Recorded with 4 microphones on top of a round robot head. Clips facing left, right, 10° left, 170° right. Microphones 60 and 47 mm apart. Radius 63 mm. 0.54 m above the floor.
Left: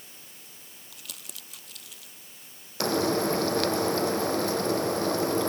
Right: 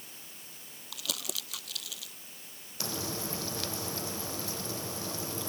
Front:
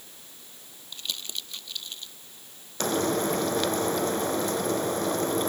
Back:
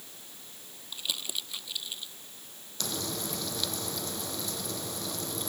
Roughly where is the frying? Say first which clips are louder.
Left 13 dB, front 11 dB; ahead left.